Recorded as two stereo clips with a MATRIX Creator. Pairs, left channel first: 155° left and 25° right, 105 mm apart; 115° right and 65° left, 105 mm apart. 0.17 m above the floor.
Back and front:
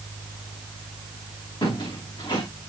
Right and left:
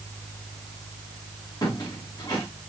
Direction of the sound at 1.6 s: 160° right.